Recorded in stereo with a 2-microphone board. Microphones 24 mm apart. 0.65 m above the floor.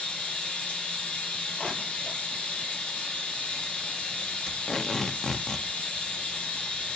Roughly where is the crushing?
Left.